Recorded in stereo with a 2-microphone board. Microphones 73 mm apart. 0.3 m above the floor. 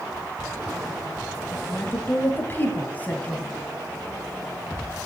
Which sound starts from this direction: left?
A woman speaking, at 1.5 s.